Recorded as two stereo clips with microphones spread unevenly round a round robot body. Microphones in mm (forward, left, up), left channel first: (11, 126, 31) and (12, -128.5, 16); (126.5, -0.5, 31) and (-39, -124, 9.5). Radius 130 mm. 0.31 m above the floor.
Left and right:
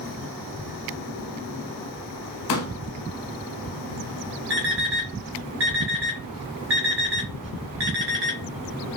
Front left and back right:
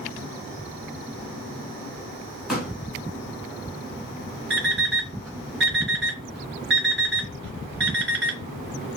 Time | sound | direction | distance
2.5 | a pop | 130° left | 0.8 m
4.5 | an alarm clock | 125° right | 1.7 m